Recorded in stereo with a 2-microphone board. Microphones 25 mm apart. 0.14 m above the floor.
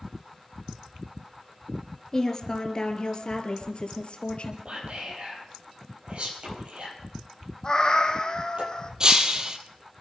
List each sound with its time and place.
2.1 s a woman speaking: 25° left (ahead or behind), 2 m; by 4.5 s 50° left (ahead or behind), 3 m
4.7 s whispering: 50° right (ahead or behind), 4 m
7.6 s a cat meowing: 35° left (ahead or behind), 1.6 m
9.0 s breaking glass: 30° right (ahead or behind), 1.2 m